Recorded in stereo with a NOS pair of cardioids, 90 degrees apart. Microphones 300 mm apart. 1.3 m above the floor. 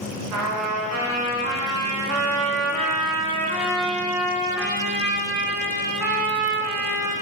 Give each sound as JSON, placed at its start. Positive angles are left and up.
{"t": 0.3, "sound": "a trumpet", "azimuth_deg": -70, "distance_m": 1.5}